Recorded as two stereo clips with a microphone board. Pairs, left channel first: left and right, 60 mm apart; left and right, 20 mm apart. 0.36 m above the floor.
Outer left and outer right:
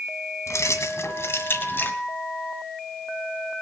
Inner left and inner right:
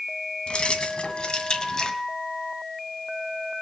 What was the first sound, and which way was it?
Keys jangling, 65° left (ahead or behind).